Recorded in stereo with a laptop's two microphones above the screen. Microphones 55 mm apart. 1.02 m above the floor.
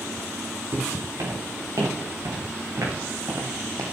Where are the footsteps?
75° right (ahead or behind), 8 m; by 3.8 s 65° right (ahead or behind), 3.5 m.